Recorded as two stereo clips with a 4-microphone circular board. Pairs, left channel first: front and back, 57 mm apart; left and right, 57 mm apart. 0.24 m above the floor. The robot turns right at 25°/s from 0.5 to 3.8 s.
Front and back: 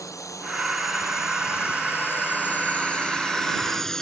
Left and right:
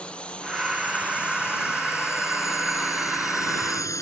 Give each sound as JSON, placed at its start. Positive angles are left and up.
{"t": 0.0, "sound": "a drone", "azimuth_deg": 20}